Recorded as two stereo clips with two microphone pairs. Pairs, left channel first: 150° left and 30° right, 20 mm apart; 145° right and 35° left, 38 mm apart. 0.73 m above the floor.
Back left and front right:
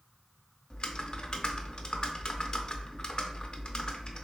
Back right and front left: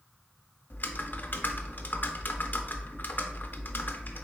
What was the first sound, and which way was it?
Typing on a keyboard, 170° right.